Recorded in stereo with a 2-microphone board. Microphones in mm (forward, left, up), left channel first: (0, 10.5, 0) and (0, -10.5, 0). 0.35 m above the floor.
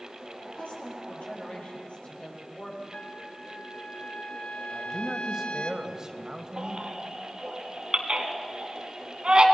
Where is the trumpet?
55° left (ahead or behind), 1.4 m.